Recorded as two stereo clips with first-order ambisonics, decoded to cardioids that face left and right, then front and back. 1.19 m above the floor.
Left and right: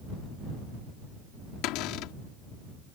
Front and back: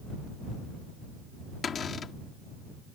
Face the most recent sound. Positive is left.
turn(degrees=65)